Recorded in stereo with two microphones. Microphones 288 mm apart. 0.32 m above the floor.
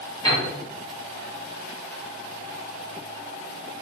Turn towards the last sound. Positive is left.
turn(degrees=15)  # may be behind; listen again after turning